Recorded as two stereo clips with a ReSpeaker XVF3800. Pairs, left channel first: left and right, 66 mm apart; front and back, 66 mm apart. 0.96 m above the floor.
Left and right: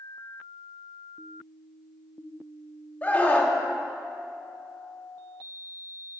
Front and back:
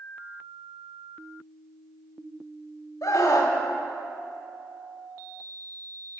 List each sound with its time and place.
3.0 s a scream: 25° left, 1.8 m